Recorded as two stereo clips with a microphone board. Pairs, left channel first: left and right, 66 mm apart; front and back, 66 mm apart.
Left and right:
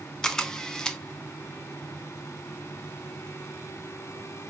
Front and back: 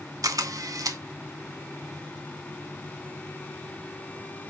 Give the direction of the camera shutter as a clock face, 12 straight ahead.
6 o'clock.